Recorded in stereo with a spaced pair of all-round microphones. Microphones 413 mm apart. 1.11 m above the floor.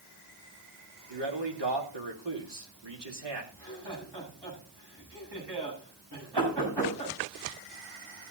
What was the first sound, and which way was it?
A man speaking, 85° right.